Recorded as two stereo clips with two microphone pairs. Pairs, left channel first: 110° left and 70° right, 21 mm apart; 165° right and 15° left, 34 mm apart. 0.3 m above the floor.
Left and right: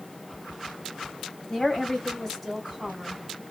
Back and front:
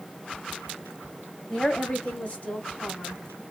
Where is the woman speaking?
150° left, 1.8 m; by 3.4 s 160° right, 2 m.